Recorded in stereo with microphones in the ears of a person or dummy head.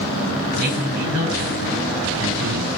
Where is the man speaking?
75° right (ahead or behind), 8 m.